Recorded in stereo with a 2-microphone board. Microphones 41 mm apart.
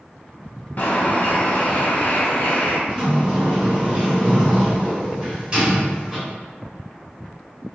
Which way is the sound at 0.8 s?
40° left (ahead or behind).